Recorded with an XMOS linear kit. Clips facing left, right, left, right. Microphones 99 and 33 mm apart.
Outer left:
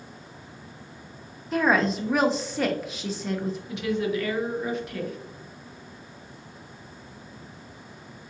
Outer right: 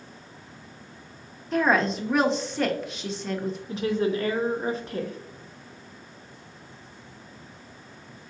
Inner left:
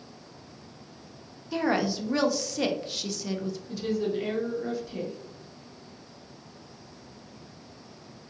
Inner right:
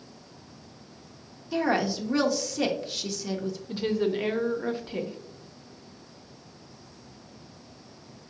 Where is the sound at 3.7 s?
35° right (ahead or behind), 0.6 m.